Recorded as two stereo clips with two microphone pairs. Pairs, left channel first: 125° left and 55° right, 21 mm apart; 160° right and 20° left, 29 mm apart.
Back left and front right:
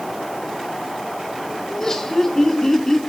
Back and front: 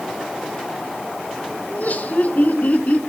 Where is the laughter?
165° right, 3 m; by 3.0 s 160° right, 1.7 m.